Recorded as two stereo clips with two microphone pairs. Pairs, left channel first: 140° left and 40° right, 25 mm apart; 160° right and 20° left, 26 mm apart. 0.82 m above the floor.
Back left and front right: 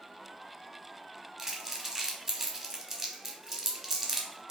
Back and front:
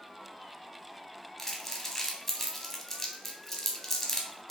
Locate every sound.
1.4 s crumpling: 90° right, 0.9 m